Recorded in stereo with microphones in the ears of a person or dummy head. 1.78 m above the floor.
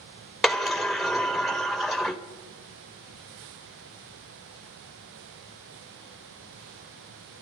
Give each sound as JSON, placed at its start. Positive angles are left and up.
{"t": 0.4, "sound": "a sliding door", "side_deg": 0, "distance_m": 0.8}